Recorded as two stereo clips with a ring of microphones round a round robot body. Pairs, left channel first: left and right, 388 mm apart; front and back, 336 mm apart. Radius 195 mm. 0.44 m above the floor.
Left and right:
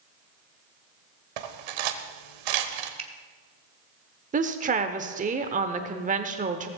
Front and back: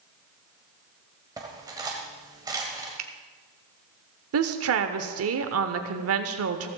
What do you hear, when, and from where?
1.4 s cutlery clinking: 100° right, 1.2 m
3.0 s a finger snap: 160° right, 1.2 m
4.3 s a woman speaking: 155° right, 1.0 m